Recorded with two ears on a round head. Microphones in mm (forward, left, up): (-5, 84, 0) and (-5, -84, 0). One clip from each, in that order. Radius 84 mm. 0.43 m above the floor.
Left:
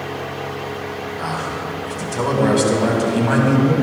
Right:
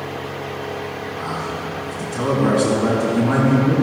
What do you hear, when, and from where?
1.2 s a man speaking: 55° left (ahead or behind), 2.5 m